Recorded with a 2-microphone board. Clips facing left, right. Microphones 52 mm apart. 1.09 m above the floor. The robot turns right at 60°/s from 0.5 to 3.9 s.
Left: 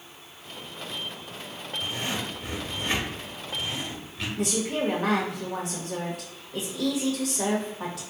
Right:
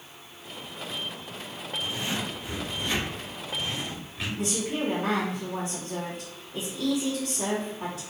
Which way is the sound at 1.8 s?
45° left (ahead or behind).